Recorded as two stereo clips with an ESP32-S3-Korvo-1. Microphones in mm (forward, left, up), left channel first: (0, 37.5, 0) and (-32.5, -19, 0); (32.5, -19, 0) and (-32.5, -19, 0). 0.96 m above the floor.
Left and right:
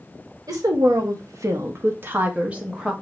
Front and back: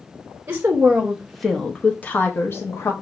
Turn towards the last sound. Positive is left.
turn(degrees=-40)